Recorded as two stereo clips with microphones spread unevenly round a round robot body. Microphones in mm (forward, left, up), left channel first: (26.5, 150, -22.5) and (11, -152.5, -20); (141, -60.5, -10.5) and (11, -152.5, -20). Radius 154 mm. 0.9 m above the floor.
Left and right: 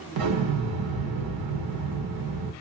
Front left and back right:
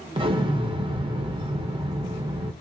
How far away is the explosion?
About 1.1 m.